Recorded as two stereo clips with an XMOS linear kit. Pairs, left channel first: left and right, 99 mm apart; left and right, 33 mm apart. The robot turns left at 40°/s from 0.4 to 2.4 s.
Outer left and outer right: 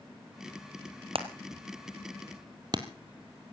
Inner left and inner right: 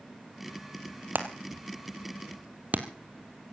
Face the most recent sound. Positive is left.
turn(degrees=-45)  # may be behind; listen again after turning